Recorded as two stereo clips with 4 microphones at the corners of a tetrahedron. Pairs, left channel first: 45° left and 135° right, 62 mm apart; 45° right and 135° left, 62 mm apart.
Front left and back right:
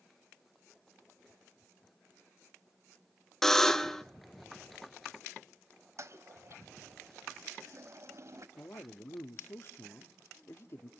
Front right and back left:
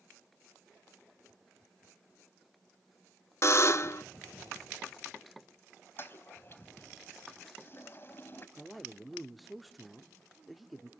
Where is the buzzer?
35° right, 0.7 m.